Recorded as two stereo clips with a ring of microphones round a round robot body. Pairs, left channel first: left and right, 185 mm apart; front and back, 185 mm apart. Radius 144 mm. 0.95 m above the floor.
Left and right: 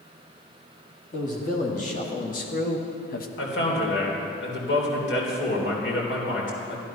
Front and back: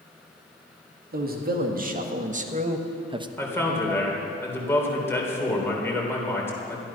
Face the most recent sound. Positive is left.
turn(degrees=80)